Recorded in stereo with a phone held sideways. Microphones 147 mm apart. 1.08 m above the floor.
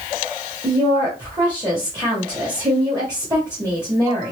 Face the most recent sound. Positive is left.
turn(degrees=-25)  # may be behind; listen again after turning